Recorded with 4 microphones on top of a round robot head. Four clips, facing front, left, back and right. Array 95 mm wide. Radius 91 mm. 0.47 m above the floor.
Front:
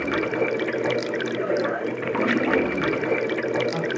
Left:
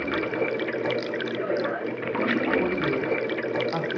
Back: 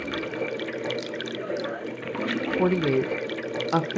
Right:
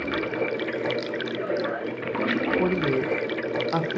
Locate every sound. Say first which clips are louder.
0.0 s running water: left 1 dB, front 6 dB; 10° left, 0.9 m
2.6 s a woman speaking: right 2 dB, back 1 dB; 165° right, 1.7 m